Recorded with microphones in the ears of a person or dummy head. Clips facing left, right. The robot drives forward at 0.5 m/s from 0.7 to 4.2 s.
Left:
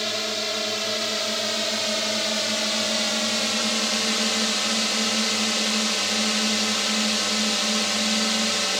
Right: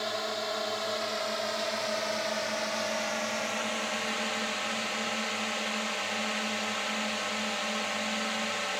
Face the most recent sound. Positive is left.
turn(degrees=60)  # may be behind; listen again after turning